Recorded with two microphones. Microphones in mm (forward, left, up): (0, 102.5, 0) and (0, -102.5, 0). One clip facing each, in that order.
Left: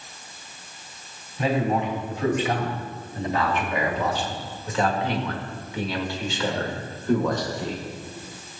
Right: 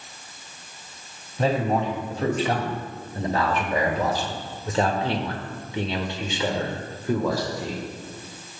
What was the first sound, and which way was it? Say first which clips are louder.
A man speaking: right 1 dB; 35° right (ahead or behind).